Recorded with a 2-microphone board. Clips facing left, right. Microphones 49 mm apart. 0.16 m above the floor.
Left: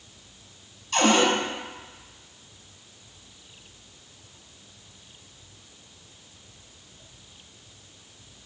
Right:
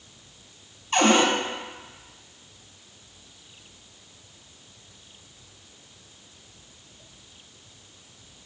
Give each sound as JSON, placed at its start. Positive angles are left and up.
{"t": 0.9, "sound": "a cupboard door", "side_deg": -30, "distance_m": 1.0}